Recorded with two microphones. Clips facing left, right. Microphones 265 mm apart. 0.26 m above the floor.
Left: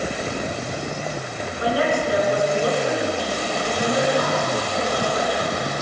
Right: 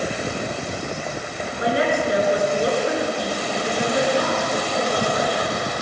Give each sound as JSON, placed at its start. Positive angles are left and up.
{"t": 1.6, "sound": "a woman speaking", "side_deg": -20, "distance_m": 4.5}